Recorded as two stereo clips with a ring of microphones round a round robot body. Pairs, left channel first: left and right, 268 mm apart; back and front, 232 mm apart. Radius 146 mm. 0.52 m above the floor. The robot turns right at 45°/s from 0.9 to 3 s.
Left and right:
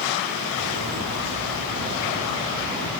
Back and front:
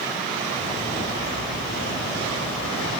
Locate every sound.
0.5 s a bird: 75° right, 2.5 m; by 2.9 s 15° left, 2.5 m